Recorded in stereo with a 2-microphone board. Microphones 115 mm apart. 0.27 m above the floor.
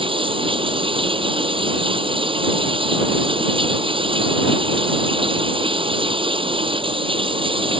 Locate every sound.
0.0 s running water: 45° right (ahead or behind)